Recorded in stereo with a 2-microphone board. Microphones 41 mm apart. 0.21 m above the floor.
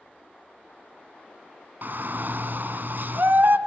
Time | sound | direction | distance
1.8 | a shout | 55° right (ahead or behind) | 1.6 m